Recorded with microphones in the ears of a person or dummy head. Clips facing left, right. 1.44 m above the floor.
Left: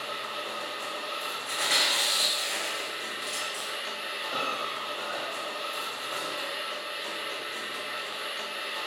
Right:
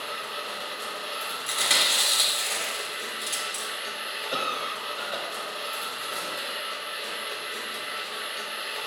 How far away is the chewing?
About 1.3 m.